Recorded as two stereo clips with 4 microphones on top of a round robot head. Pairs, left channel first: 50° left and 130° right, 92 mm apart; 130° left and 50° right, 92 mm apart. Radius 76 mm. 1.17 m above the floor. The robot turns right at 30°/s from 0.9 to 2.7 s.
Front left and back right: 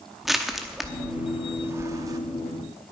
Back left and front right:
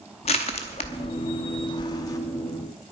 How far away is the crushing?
About 0.9 m.